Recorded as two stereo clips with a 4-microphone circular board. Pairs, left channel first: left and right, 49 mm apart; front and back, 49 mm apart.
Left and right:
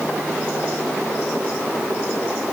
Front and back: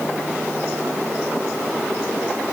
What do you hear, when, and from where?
Only background noise.